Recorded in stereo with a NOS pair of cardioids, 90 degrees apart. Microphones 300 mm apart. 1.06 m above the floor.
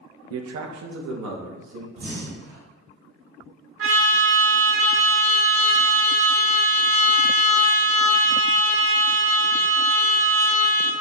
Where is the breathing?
40° right, 1.9 m.